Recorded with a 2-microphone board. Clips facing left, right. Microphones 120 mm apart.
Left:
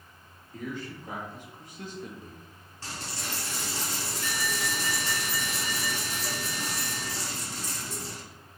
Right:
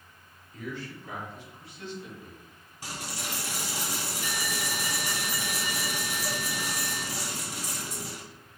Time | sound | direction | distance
0.5 | a man speaking | 45° left (ahead or behind) | 1.8 m
2.8 | a dropped coin | 15° right (ahead or behind) | 1.1 m